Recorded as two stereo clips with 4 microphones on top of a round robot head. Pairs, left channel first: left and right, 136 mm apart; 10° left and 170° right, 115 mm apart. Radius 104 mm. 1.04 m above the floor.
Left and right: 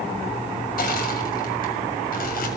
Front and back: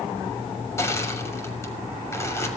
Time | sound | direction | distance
0.8 | crushing | 80° left | 6 m